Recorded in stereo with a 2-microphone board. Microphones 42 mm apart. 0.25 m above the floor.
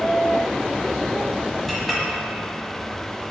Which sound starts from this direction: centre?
A clink, at 1.7 s.